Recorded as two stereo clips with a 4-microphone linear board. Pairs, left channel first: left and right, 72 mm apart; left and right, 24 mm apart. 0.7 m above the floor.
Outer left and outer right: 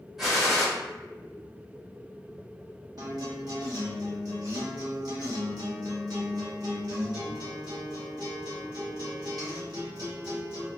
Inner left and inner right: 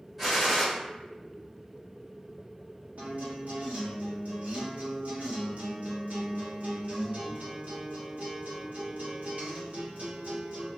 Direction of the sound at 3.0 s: 70° right (ahead or behind).